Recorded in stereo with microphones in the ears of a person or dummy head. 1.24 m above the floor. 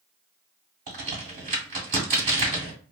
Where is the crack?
50° right (ahead or behind), 1.5 m.